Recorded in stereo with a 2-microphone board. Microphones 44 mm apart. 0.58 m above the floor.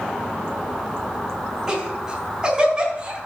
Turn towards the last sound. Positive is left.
turn(degrees=-20)  # may be behind; listen again after turning